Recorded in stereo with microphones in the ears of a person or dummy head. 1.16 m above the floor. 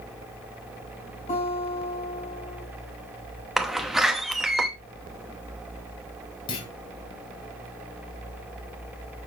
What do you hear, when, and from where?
1.3 s a guitar: 30° left (ahead or behind), 8 m
3.6 s a door slam: 5° right (ahead or behind), 1.0 m
6.5 s a clunk: 30° left (ahead or behind), 2.5 m